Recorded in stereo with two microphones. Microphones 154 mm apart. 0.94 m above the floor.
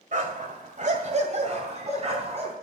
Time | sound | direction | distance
0.1 | a dog barking | 60° right (ahead or behind) | 2.0 m